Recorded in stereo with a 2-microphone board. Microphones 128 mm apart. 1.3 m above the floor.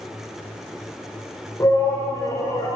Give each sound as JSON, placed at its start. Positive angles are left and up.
{"t": 1.6, "sound": "a shout", "side_deg": 25, "distance_m": 5.0}